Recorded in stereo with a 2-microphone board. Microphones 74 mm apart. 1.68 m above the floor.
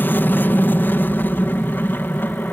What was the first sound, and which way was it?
An aircraft, 25° left (ahead or behind).